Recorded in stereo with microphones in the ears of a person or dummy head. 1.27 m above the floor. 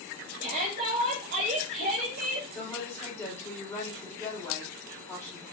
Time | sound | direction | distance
0.4 | a shout | 50° right (ahead or behind) | 1.8 m
2.5 | a woman speaking | 15° left (ahead or behind) | 4 m